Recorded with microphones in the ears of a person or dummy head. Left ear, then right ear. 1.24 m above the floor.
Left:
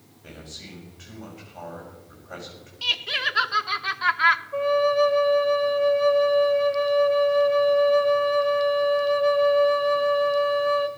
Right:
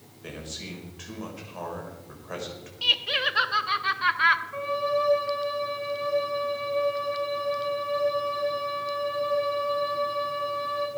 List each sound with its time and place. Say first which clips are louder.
0.2 s a man speaking: right 3 dB; 65° right (ahead or behind), 4.5 m
2.8 s laughter: right 1 dB; 10° left (ahead or behind), 0.7 m
4.5 s a flute: left 6 dB; 25° left (ahead or behind), 1.2 m